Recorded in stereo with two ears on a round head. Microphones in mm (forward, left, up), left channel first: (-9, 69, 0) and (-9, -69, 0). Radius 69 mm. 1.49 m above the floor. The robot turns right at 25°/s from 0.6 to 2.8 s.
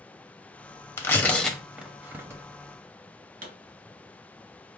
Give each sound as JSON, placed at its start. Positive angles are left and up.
{"t": 1.0, "sound": "tearing paper", "side_deg": 20, "distance_m": 0.8}
{"t": 3.4, "sound": "a pop", "side_deg": -55, "distance_m": 1.9}